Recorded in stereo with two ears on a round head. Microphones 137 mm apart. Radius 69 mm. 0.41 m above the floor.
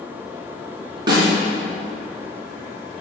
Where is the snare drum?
30° right (ahead or behind), 3 m.